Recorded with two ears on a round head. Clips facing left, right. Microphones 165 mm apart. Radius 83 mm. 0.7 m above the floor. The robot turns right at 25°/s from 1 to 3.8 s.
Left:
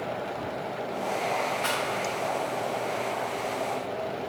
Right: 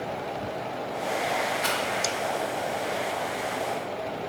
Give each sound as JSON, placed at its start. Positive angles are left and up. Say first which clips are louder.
{"t": 1.6, "sound": "a rattle", "louder": "right 1 dB", "side_deg": -20, "distance_m": 0.6}